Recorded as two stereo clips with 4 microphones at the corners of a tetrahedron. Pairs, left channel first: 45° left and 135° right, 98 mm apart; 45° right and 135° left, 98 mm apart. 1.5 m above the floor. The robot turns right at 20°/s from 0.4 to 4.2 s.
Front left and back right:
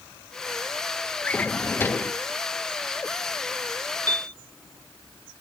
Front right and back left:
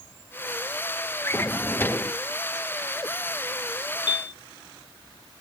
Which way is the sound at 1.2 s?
15° right.